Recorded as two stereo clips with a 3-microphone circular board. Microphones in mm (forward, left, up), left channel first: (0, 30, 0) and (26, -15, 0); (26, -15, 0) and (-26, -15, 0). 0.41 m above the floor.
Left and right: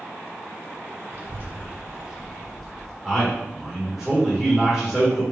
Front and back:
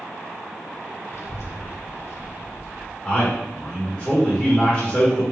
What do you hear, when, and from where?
1.1 s a child speaking: 30° right, 0.8 m; by 2.9 s 40° left, 1.4 m
3.0 s a man speaking: straight ahead, 1.3 m